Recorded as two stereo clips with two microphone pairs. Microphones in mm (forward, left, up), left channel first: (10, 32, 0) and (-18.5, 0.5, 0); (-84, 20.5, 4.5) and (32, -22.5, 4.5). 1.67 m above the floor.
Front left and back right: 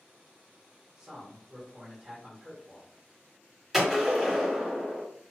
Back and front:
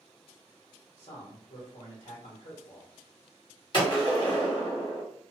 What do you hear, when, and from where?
1.0 s a man speaking: straight behind, 1.1 m
3.7 s a gunshot: 150° left, 1.5 m